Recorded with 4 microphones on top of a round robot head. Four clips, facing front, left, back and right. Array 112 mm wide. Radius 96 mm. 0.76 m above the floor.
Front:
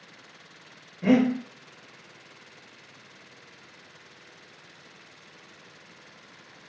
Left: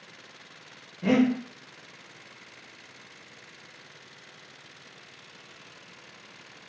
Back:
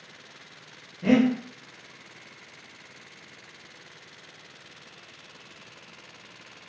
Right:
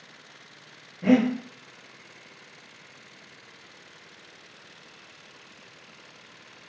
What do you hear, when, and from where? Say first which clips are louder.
1.0 s breathing: right 2 dB, even; 25° right, 1.0 m